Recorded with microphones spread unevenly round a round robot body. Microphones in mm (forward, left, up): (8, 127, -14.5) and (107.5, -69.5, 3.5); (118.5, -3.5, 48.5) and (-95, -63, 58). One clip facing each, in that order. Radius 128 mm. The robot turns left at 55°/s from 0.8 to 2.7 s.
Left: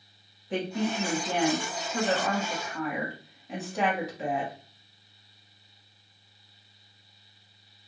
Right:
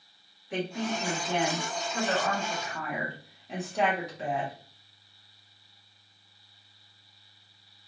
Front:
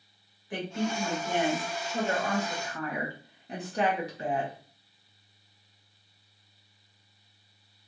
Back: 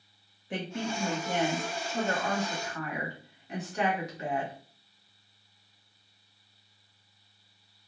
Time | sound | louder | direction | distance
0.5 | a woman speaking | left 2 dB, front 3 dB | 140° left | 1.2 m